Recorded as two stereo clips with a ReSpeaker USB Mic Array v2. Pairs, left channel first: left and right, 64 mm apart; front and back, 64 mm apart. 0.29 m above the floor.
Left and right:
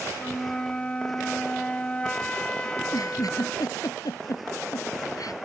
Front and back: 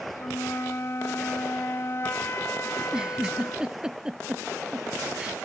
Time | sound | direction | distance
0.2 | a flute | 25° left | ?
2.8 | a giggle | 105° left | ?